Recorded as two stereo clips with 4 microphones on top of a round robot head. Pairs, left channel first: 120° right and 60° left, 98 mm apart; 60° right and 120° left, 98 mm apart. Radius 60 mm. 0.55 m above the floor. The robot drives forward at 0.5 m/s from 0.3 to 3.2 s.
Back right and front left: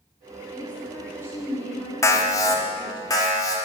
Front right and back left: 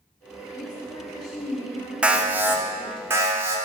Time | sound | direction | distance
0.5 | a woman speaking | 45° right | 1.3 m
2.0 | an alarm | 165° right | 0.5 m